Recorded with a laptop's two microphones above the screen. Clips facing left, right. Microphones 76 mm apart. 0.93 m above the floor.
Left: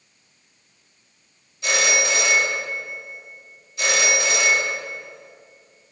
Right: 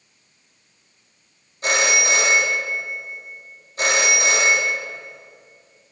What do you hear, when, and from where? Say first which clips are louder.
1.6 s a phone ringing: right 2 dB; 40° right (ahead or behind), 1.0 m